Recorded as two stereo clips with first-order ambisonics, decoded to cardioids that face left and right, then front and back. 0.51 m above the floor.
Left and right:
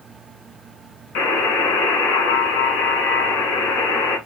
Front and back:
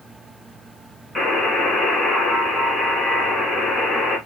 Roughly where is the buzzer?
Left.